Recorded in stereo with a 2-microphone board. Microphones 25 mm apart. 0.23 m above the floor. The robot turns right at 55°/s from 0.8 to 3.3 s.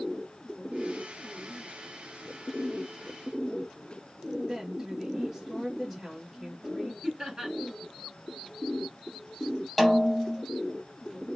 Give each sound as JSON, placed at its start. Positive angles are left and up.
{"t": 4.5, "sound": "a woman speaking", "side_deg": -10, "distance_m": 2.0}
{"t": 7.0, "sound": "laughter", "side_deg": -30, "distance_m": 1.3}
{"t": 9.8, "sound": "a snare drum", "side_deg": -5, "distance_m": 0.8}